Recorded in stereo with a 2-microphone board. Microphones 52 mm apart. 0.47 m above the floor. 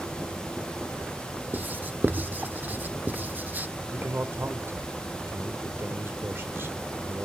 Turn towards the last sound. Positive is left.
turn(degrees=-45)  # may be behind; listen again after turning